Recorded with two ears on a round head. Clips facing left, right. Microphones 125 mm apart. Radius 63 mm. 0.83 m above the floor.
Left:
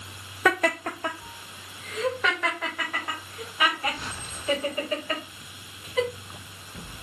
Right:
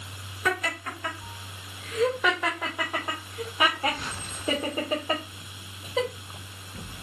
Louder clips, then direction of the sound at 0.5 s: Left 6 dB; 50° left (ahead or behind).